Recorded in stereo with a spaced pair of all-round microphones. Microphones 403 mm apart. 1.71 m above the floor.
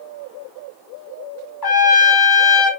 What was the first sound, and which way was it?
A trumpet, 65° left (ahead or behind).